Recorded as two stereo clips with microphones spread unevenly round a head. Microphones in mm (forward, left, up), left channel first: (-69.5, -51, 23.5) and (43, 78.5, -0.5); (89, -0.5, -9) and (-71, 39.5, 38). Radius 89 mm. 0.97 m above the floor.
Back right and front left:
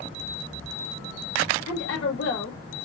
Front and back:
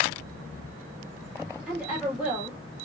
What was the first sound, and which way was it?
A woman speaking, 105° right.